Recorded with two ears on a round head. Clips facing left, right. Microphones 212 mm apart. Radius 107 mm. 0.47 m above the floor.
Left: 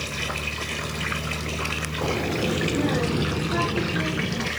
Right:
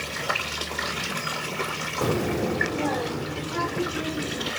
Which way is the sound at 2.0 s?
20° right (ahead or behind).